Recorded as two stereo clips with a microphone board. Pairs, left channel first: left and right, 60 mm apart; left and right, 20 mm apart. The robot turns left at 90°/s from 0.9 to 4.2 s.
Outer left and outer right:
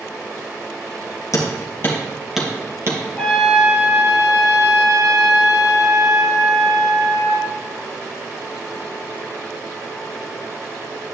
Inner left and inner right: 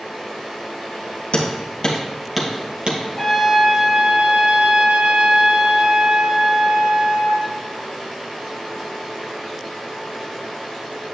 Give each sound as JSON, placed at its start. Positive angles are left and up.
{"t": 1.3, "sound": "hammering", "side_deg": 65, "distance_m": 2.0}
{"t": 3.2, "sound": "a trumpet", "azimuth_deg": 25, "distance_m": 2.0}